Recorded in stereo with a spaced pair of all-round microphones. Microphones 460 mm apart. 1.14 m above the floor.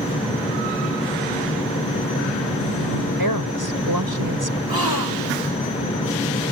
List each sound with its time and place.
0.0 s a fan: 10° left (ahead or behind)
3.2 s a woman speaking: 50° right (ahead or behind)
4.7 s a gasp: 50° right (ahead or behind)